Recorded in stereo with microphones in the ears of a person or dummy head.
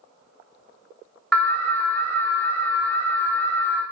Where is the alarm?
5° left (ahead or behind), 0.9 m.